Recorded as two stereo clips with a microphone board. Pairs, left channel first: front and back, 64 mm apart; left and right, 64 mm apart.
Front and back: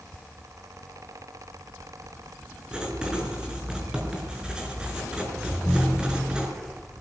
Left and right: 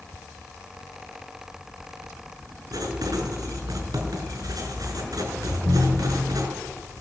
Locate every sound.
2.7 s writing: 105° right, 6 m
5.5 s a ringtone: 95° right, 5 m